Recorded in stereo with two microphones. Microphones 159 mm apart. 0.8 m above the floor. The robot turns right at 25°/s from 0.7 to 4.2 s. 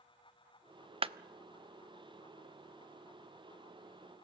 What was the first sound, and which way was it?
A clap, 35° right (ahead or behind).